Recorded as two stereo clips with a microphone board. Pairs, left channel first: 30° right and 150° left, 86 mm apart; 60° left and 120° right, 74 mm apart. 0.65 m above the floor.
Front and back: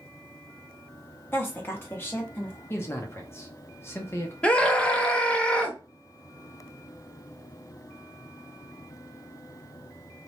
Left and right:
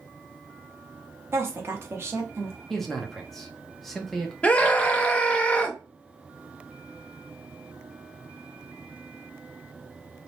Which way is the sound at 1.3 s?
85° right.